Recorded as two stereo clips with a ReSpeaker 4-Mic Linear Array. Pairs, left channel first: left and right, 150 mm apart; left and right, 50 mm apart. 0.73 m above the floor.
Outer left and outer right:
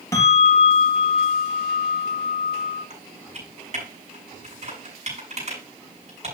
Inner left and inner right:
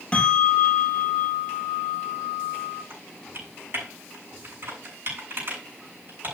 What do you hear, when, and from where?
0.1 s a bell: 20° left (ahead or behind), 4 m
2.9 s typing on a keyboard: 50° right (ahead or behind), 7 m